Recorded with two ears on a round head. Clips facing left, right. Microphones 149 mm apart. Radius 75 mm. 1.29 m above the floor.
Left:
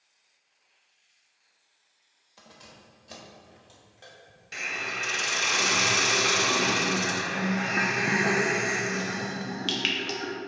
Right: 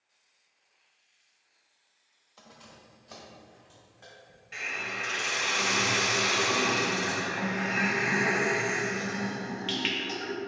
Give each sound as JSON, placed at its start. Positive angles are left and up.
{"t": 2.4, "sound": "keys jangling", "side_deg": 10, "distance_m": 1.0}
{"t": 4.5, "sound": "a hiss", "side_deg": 50, "distance_m": 1.0}